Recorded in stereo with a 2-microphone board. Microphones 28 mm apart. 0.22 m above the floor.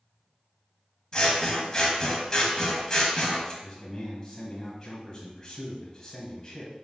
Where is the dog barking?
I don't hear a dog barking.